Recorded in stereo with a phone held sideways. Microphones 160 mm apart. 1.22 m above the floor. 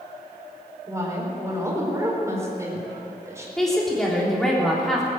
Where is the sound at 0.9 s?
20° right (ahead or behind), 4 m.